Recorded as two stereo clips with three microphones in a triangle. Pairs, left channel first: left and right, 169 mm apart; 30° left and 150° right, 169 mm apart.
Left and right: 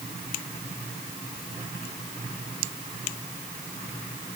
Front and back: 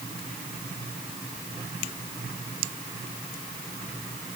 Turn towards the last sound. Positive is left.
No sound to turn to.